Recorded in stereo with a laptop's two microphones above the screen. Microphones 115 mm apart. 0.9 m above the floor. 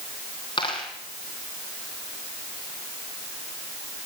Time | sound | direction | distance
0.6 | a dropped coin | 40° left (ahead or behind) | 4.5 m